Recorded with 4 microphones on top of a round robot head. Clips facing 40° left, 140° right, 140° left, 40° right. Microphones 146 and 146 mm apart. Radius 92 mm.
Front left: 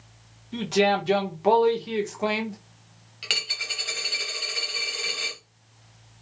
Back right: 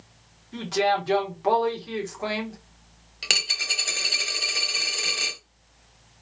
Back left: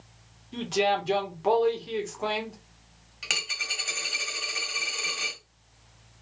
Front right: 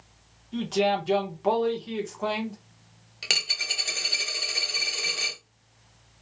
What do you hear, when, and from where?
0.5 s a man speaking: 55° left, 1.0 m
3.2 s a dropped coin: 95° right, 0.8 m